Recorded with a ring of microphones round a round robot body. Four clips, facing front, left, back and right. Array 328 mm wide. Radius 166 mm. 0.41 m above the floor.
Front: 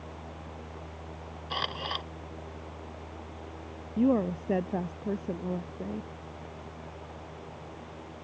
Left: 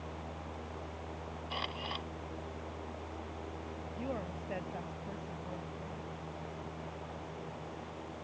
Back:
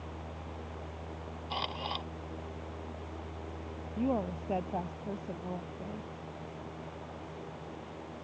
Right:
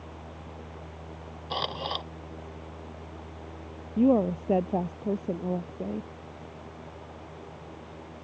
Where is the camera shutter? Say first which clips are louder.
Right 9 dB, front 2 dB; 70° right.